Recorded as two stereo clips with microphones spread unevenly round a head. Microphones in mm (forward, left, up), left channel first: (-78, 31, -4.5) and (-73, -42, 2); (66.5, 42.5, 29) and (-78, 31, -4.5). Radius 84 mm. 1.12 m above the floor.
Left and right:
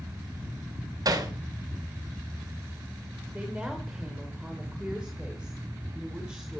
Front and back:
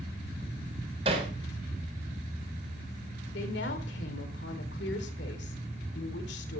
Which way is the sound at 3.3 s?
Straight ahead.